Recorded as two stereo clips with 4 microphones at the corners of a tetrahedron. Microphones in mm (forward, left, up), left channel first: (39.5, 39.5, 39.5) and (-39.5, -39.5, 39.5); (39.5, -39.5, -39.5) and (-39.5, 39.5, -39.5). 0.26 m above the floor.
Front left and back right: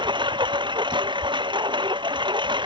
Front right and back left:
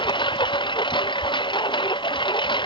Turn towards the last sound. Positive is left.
turn(degrees=-90)